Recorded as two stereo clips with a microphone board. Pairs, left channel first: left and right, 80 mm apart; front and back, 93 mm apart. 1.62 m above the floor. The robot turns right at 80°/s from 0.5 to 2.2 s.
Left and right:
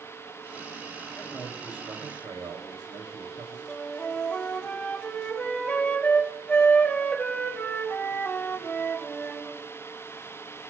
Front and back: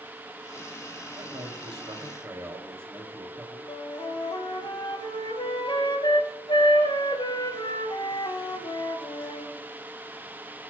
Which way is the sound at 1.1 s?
160° left.